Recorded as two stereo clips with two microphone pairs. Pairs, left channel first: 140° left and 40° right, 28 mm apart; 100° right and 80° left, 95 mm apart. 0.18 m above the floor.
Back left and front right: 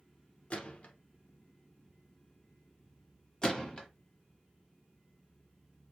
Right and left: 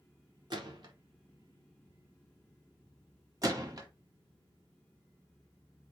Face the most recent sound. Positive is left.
turn(degrees=100)